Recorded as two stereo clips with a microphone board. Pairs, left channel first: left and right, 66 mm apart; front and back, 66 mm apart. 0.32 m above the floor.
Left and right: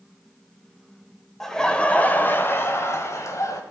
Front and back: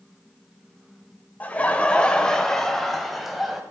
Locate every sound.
1.4 s laughter: 10° left, 1.2 m; by 3.6 s 90° left, 1.9 m